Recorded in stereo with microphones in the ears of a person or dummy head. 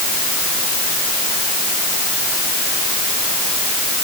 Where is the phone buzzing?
No phone buzzing in this recording.